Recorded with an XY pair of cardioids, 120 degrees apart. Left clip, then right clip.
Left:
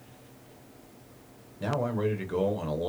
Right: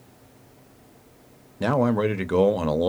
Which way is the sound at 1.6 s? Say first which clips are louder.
Right 7 dB; 55° right.